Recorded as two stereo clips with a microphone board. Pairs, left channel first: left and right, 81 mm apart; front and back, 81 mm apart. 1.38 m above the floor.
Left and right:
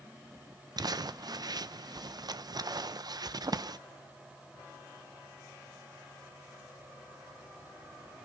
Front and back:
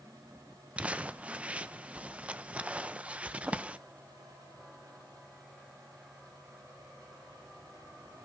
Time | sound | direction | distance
0.8 | crumpling | 110° right | 0.6 m